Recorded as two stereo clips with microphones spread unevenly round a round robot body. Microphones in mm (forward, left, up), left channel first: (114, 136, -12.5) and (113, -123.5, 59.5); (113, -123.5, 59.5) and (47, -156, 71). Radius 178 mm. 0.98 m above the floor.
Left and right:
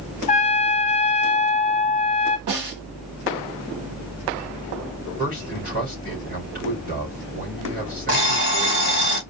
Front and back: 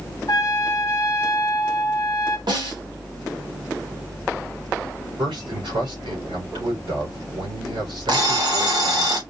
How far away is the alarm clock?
About 2 m.